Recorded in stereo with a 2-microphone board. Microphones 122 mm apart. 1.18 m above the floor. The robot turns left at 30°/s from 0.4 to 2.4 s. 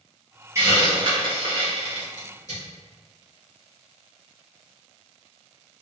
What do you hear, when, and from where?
0.6 s a hiss: 25° right (ahead or behind), 1.9 m; by 2.6 s 75° right (ahead or behind), 1.9 m